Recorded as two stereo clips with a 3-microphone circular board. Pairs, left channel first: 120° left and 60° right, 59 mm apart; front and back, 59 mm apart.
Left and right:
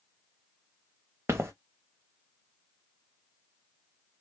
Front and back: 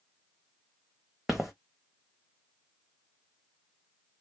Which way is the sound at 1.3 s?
95° right.